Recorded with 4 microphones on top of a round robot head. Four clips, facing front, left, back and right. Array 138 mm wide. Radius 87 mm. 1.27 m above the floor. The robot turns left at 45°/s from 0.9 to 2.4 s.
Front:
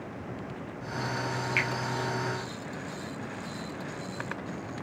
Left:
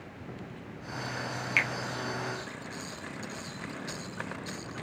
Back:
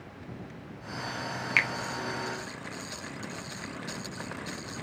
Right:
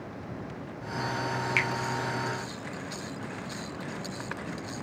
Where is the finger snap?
170° right, 0.7 m; by 1.7 s 175° right, 0.7 m.